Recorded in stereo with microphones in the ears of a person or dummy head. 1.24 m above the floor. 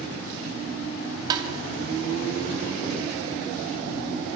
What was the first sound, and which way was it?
Tapping, 25° right (ahead or behind).